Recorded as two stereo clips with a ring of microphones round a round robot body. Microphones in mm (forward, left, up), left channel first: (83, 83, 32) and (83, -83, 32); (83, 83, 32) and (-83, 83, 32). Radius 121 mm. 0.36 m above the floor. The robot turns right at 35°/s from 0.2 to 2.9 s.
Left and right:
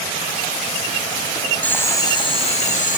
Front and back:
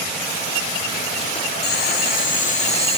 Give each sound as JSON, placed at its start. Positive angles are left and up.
{"t": 1.6, "sound": "boiling", "azimuth_deg": 10, "distance_m": 2.0}